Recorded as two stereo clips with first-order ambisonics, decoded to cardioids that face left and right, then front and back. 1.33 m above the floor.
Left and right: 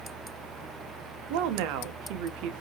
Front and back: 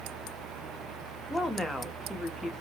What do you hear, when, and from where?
1.3 s a woman speaking: 85° right, 0.6 m